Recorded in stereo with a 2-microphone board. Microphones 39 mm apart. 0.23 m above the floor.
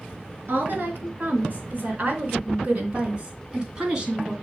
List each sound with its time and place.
0.5 s a woman speaking: 55° right (ahead or behind), 3.5 m; by 4.3 s 10° right (ahead or behind), 2 m